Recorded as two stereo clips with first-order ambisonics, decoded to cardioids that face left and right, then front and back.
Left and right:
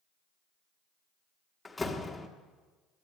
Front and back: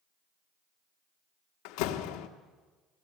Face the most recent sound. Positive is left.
turn(degrees=10)